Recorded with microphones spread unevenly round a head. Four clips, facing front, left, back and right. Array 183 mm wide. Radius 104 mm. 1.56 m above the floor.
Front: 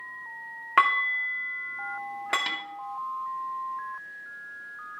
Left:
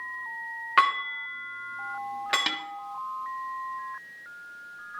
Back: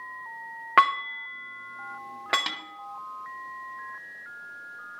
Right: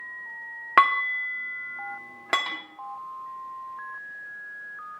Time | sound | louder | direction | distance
0.8 | dishes clattering | right 3 dB, back 2 dB | 130° right | 2.5 m
2.5 | a snare drum | left 2 dB, front 2 dB | 110° left | 1.3 m